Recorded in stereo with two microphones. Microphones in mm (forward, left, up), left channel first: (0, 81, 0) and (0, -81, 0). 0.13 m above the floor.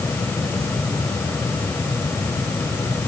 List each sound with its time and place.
Only background noise.